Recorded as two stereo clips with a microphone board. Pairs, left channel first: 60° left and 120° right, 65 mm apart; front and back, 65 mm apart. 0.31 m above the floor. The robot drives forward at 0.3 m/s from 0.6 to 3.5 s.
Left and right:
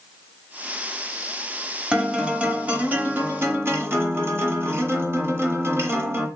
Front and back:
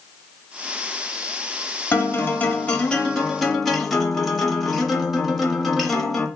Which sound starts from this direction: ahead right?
A guitar, at 1.9 s.